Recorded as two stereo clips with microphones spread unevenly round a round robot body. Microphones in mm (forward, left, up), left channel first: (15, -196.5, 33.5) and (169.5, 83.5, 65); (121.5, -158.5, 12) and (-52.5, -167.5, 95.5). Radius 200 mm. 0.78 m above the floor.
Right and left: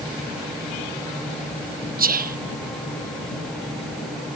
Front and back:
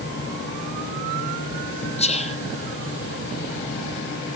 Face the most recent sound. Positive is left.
turn(degrees=-5)